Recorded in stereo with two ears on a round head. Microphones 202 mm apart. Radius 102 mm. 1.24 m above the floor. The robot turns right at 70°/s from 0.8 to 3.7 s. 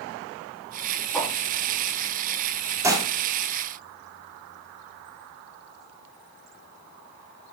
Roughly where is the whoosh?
Centre.